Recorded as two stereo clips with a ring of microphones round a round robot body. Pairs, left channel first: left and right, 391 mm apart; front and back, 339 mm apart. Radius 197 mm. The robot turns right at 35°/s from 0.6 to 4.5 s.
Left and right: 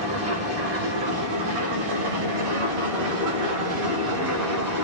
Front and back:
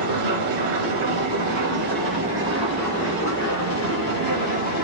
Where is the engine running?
165° right, 4.5 m; by 4.8 s 25° right, 4.5 m.